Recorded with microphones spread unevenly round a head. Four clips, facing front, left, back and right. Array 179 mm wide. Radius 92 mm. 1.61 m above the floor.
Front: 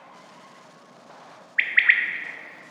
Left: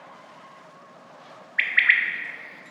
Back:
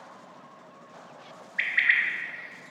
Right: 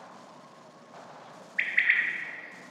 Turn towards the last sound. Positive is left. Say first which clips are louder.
# left 5 dB, front 4 dB
turn(degrees=5)